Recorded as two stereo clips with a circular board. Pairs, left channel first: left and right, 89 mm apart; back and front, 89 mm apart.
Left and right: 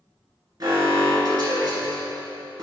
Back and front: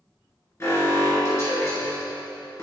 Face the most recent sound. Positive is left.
turn(degrees=-125)